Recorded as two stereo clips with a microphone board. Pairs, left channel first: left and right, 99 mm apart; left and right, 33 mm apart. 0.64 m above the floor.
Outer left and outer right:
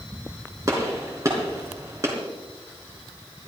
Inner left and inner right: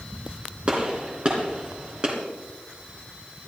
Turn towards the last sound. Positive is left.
turn(degrees=-30)  # may be behind; listen again after turning